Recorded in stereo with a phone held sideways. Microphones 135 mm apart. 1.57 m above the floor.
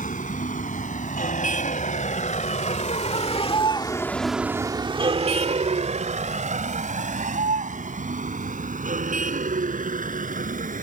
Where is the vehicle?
75° left (ahead or behind); by 10.8 s 75° right (ahead or behind).